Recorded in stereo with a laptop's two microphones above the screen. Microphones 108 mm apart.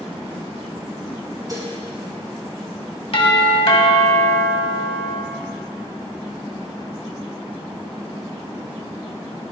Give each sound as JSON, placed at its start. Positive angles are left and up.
{"t": 1.5, "sound": "dishes clattering", "side_deg": -35, "distance_m": 3.5}
{"t": 3.1, "sound": "a doorbell", "side_deg": 60, "distance_m": 2.0}